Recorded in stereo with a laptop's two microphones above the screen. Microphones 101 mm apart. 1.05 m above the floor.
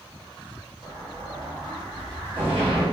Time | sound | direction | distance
0.8 | an explosion | 75° right (ahead or behind) | 1.6 m